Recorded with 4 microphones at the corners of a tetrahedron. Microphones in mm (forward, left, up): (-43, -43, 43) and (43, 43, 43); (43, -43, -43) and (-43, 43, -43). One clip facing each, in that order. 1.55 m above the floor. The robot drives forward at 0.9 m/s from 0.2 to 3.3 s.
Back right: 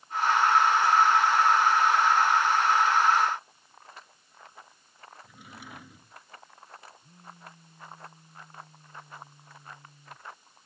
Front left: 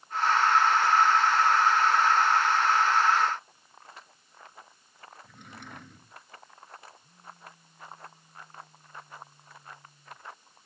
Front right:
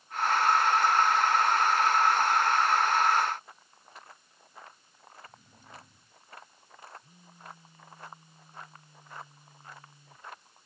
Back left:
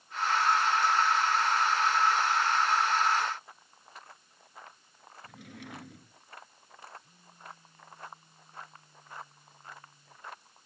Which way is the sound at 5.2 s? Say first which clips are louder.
Even, back left 7 dB; 140° left.